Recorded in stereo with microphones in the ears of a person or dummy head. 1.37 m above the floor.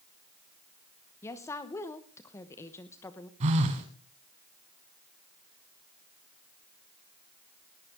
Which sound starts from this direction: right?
A phone buzzing, at 3.4 s.